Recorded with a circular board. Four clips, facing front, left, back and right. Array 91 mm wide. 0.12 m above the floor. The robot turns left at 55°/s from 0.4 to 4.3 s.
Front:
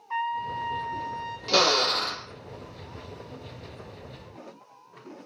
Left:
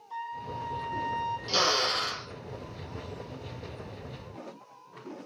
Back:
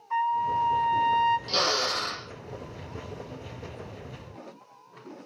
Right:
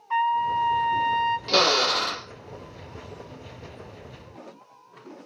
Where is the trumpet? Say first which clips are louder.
Right 15 dB, back 4 dB; 80° right, 1.8 m; by 1.4 s 135° right, 1.8 m.